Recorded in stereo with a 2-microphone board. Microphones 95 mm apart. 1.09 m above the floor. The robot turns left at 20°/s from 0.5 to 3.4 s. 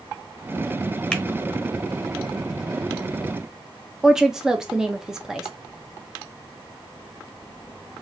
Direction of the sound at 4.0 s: 5° right (ahead or behind).